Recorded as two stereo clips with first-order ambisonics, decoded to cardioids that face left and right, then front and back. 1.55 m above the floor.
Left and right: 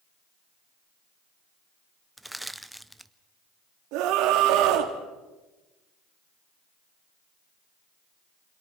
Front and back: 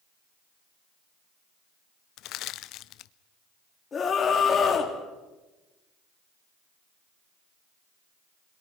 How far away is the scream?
About 3 m.